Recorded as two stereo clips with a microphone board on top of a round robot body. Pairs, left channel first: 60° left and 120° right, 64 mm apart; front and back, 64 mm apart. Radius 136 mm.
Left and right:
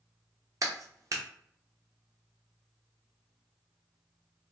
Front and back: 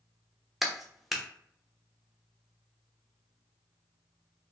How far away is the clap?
About 0.9 m.